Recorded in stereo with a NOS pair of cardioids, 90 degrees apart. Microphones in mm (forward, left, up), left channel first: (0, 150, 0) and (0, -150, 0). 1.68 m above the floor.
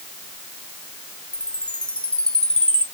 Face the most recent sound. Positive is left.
turn(degrees=5)